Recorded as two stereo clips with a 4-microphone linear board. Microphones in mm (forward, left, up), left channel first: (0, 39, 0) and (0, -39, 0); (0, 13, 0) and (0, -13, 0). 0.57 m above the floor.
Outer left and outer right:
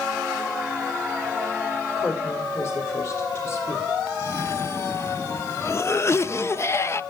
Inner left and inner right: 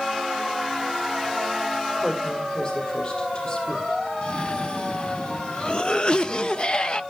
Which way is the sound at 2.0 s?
35° left (ahead or behind).